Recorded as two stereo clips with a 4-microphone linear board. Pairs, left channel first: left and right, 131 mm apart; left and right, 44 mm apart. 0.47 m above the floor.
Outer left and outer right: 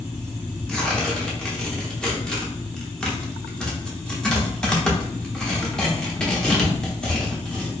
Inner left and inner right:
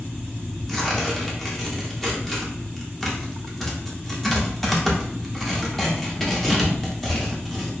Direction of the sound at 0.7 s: 5° left (ahead or behind).